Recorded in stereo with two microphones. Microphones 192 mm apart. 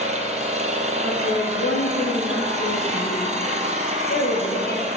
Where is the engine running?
40° right (ahead or behind), 1.2 m.